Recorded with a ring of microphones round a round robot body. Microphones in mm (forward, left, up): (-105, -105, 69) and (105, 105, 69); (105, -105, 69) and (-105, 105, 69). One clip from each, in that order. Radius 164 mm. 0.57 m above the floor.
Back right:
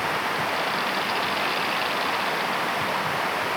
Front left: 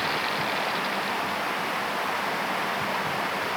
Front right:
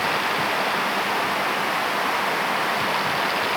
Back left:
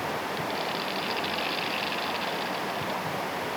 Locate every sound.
0.0 s running water: 55° right